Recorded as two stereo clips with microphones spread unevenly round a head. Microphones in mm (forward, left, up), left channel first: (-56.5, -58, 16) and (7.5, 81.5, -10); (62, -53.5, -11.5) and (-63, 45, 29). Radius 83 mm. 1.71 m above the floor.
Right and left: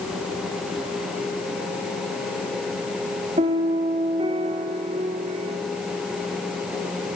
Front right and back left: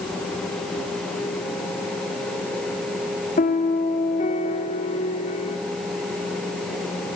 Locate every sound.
3.4 s a piano: 10° left, 1.7 m